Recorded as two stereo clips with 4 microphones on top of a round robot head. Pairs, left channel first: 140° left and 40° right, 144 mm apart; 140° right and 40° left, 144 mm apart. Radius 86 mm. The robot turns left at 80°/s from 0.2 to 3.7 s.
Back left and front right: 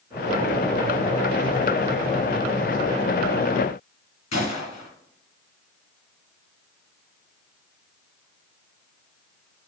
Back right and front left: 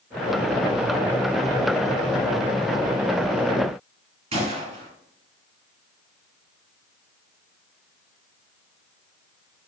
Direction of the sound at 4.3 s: 90° left.